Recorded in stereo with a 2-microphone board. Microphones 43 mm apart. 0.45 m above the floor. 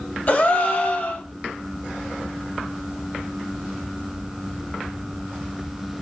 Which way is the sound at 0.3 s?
35° left (ahead or behind).